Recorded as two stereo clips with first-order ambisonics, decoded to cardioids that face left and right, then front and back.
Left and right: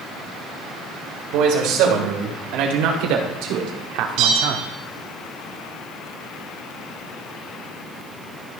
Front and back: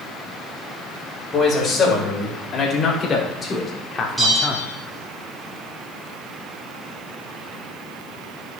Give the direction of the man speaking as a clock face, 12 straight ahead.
2 o'clock.